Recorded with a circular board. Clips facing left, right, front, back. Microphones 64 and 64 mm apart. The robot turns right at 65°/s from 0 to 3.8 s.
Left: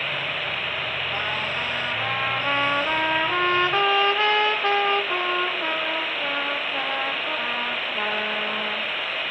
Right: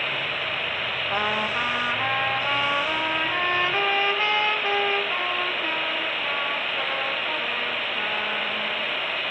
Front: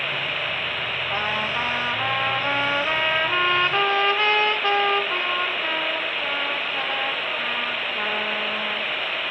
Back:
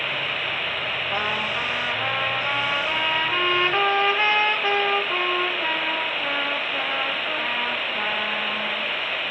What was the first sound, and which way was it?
A trumpet, 65° right.